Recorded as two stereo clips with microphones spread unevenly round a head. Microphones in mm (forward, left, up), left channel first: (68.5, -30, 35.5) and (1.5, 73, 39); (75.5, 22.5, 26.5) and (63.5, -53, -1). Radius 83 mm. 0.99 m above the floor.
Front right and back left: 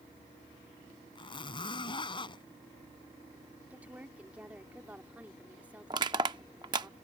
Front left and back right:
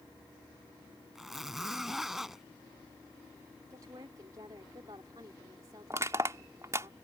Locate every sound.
1.1 s a zipper: 5° right
3.7 s a woman speaking: 155° right
5.9 s crushing: straight behind